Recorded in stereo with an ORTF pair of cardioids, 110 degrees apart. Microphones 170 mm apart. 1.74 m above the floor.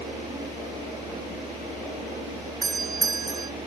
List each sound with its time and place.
0.0 s a machine running: 30° right
2.6 s a doorbell: 25° right